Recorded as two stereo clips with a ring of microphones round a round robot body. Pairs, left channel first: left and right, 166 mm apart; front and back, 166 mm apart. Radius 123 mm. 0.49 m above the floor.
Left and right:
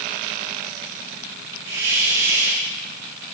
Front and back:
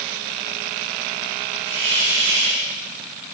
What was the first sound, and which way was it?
A hiss, 135° right.